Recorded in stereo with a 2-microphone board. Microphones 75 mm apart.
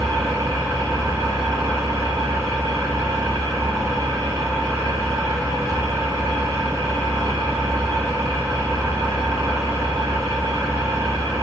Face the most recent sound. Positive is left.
turn(degrees=-55)  # may be behind; listen again after turning